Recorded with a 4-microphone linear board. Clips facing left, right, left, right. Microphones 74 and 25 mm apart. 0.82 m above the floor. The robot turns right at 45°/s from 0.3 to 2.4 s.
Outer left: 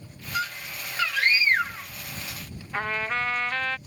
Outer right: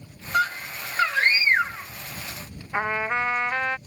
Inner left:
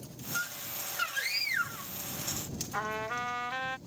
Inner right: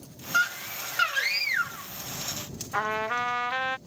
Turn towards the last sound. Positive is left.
turn(degrees=-20)  # may be behind; listen again after turning